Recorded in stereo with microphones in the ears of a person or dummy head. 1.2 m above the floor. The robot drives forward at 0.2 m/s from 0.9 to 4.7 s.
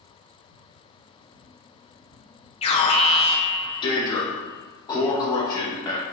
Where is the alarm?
35° left (ahead or behind), 0.7 m; by 6.0 s 20° left (ahead or behind), 1.0 m.